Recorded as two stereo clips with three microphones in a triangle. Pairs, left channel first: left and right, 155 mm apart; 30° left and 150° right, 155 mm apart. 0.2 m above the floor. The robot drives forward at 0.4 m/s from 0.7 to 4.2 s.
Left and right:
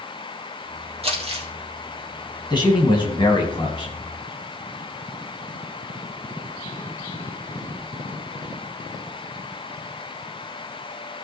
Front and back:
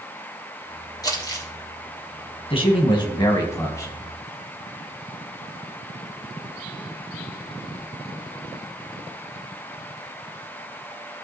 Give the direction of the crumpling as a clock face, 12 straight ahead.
1 o'clock.